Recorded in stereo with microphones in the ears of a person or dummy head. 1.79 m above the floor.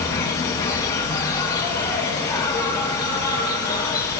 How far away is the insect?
About 2.5 m.